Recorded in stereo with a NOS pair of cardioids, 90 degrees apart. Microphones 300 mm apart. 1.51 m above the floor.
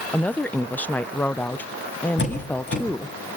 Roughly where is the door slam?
Ahead left.